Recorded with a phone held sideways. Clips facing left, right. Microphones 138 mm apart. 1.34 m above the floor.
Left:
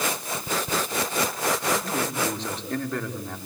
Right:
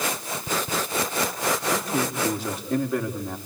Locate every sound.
1.7 s a man speaking: 10° right (ahead or behind), 4 m